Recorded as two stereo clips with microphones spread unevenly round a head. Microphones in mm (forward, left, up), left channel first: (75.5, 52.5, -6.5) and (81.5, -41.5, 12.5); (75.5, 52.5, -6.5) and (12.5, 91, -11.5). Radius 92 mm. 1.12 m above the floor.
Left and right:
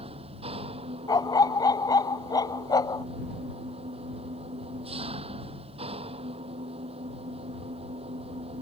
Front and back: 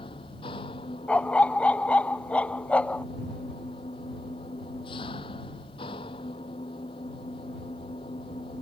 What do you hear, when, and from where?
0.0 s an engine running: 70° right
1.1 s a dog barking: 40° left